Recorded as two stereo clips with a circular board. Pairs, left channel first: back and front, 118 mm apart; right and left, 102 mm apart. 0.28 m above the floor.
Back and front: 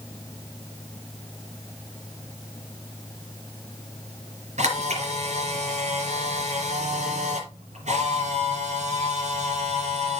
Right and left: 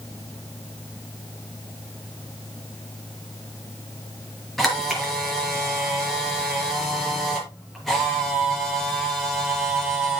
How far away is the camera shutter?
About 4.5 m.